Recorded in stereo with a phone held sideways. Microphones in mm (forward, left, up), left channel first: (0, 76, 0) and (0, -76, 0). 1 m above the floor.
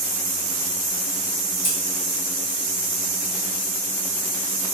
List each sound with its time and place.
1.6 s scissors: 40° right (ahead or behind), 1.9 m